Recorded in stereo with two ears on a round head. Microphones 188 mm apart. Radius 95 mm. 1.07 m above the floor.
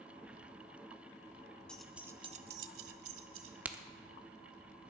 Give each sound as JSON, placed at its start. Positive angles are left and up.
{"t": 1.7, "sound": "keys jangling", "side_deg": 5, "distance_m": 1.2}
{"t": 3.6, "sound": "a crack", "side_deg": -10, "distance_m": 0.9}